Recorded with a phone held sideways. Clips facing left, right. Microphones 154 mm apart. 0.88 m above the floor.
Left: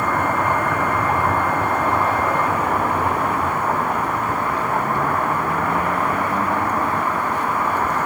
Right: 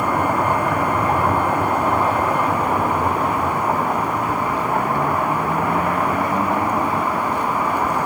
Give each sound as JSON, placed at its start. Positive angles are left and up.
{"t": 0.0, "sound": "a vehicle", "side_deg": -10}